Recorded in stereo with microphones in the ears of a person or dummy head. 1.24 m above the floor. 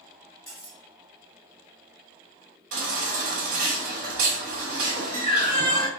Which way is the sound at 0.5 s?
5° left (ahead or behind).